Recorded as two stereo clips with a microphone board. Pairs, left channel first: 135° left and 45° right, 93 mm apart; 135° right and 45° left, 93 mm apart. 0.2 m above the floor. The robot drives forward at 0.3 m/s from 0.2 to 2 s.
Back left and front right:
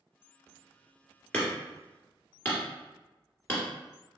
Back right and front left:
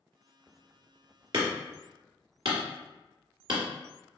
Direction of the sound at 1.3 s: 60° left.